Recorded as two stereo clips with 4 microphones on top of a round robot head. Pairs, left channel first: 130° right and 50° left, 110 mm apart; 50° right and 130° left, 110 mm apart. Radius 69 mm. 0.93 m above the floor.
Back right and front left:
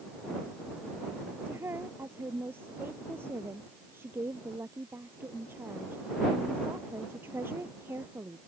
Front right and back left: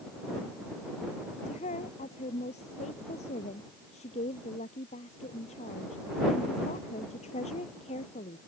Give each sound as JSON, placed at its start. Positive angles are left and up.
{"t": 1.4, "sound": "a woman speaking", "azimuth_deg": -20}